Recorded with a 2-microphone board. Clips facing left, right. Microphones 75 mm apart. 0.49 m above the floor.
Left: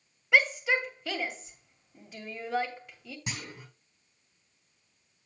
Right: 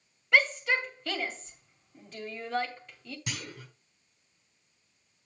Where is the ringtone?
No ringtone in this recording.